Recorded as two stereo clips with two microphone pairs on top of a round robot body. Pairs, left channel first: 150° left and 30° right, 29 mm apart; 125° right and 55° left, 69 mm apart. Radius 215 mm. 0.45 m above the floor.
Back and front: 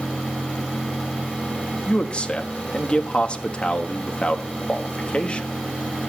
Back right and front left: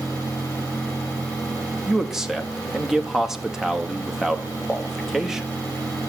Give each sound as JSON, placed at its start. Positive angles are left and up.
{"t": 1.9, "sound": "a man speaking", "azimuth_deg": 140, "distance_m": 1.1}